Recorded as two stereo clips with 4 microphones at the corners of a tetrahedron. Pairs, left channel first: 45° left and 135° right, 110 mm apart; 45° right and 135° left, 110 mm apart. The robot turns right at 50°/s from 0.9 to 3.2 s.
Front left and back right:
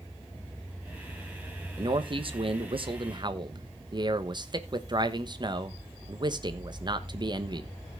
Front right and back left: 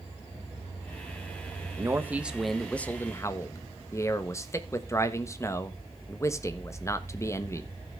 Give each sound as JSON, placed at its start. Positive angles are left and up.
{"t": 1.8, "sound": "a man speaking", "azimuth_deg": -175, "distance_m": 1.2}